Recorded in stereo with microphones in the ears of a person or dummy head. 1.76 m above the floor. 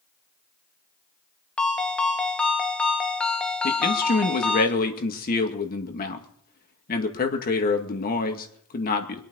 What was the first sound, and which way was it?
A ringtone, centre (ahead or behind).